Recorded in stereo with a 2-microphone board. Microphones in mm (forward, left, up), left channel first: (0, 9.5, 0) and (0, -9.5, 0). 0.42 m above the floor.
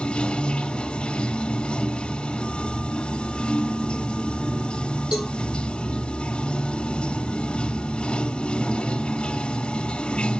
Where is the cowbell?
55° right (ahead or behind), 7.5 m.